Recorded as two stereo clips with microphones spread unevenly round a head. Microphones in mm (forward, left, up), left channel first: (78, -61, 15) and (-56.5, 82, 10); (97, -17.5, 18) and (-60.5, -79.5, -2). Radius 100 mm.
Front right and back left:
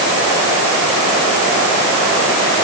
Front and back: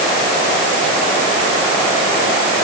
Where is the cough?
I don't hear a cough.